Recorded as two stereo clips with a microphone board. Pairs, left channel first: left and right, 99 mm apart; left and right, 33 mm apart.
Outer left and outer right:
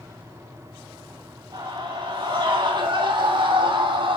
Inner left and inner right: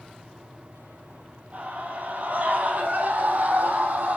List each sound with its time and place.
1.5 s a scream: 45° right (ahead or behind), 5 m; by 4.2 s 55° right (ahead or behind), 6 m